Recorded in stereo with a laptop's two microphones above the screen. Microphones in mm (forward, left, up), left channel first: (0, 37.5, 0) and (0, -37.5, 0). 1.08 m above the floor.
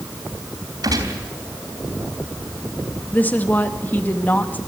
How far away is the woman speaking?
About 1.9 m.